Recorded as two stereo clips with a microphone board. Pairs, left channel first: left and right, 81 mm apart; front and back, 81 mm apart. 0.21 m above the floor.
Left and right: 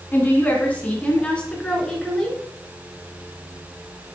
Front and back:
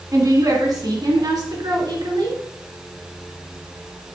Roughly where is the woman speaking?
Behind left.